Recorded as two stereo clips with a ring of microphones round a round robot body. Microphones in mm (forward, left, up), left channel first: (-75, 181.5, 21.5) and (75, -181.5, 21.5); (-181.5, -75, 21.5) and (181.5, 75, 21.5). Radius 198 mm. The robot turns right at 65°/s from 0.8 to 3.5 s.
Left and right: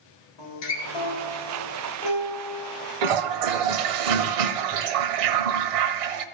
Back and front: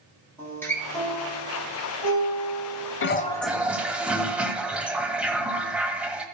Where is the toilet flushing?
95° right, 0.7 m; by 6.2 s 65° right, 0.7 m.